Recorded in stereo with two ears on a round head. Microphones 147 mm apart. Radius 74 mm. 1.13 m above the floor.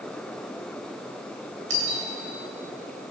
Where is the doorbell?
50° right (ahead or behind), 8.5 m.